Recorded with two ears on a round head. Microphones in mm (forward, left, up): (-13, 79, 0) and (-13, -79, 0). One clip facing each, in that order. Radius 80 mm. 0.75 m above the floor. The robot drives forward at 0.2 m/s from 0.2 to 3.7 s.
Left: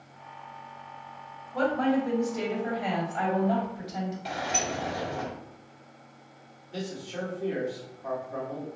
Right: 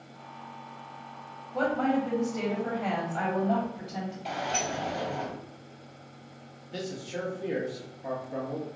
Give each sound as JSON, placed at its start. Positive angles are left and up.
{"t": 1.5, "sound": "a woman speaking", "side_deg": 0, "distance_m": 1.0}
{"t": 4.2, "sound": "a sliding door", "side_deg": 5, "distance_m": 0.5}
{"t": 6.7, "sound": "a man speaking", "side_deg": -25, "distance_m": 1.0}